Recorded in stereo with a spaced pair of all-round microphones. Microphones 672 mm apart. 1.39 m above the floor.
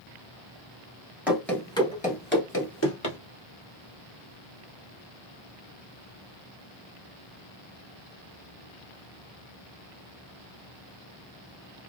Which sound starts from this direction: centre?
Running footsteps, at 1.3 s.